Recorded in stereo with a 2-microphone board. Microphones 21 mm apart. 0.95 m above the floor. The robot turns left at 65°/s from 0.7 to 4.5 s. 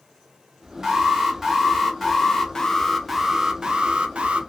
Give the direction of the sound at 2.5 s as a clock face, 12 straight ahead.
11 o'clock.